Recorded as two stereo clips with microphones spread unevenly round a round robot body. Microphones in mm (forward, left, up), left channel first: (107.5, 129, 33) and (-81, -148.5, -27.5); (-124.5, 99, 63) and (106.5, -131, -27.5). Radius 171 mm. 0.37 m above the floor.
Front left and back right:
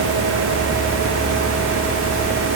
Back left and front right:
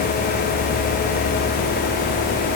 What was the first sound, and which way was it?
Only background noise.